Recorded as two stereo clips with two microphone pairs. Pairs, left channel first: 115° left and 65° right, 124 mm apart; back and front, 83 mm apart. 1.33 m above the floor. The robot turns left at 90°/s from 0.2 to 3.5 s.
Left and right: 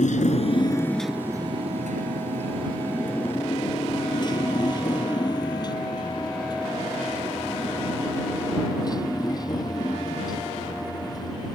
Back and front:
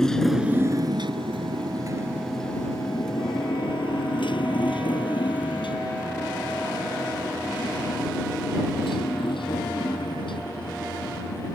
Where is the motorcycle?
100° left; by 11.6 s 175° left.